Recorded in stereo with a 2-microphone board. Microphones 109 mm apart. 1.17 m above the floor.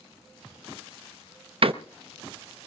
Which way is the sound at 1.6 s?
60° right (ahead or behind).